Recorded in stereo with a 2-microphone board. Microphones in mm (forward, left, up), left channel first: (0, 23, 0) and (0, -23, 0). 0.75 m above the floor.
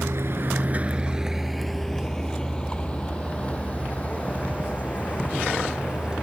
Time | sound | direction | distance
0.0 | a vehicle | 70° right (ahead or behind) | ?